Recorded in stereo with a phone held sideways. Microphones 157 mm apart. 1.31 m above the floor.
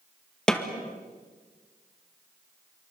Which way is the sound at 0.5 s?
5° left (ahead or behind).